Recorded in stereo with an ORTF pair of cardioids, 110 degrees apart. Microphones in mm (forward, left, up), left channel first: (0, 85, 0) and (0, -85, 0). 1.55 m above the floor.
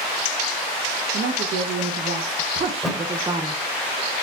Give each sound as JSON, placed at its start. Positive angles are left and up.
{"t": 1.1, "sound": "a woman speaking", "azimuth_deg": -60, "distance_m": 2.0}
{"t": 2.7, "sound": "a thud", "azimuth_deg": 0, "distance_m": 3.0}